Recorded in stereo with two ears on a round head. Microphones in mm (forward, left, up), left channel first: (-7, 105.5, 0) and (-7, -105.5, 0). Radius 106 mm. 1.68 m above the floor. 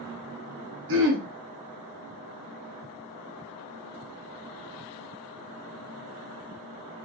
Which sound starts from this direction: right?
Throat clearing, at 0.9 s.